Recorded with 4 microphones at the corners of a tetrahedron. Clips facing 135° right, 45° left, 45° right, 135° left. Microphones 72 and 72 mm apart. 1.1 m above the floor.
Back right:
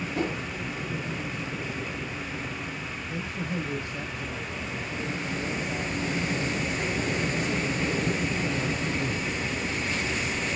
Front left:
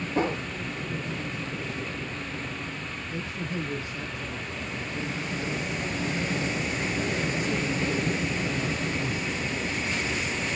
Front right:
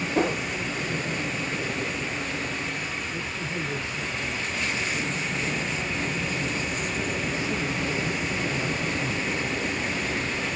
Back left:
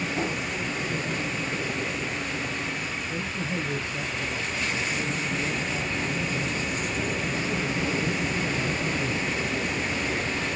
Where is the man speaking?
175° right, 9.5 m.